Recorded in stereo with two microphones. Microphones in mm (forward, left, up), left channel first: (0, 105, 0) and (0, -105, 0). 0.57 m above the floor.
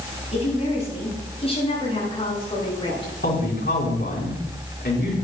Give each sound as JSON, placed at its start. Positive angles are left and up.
{"t": 0.3, "sound": "a woman speaking", "side_deg": 35, "distance_m": 6.5}
{"t": 3.2, "sound": "a man speaking", "side_deg": 60, "distance_m": 4.5}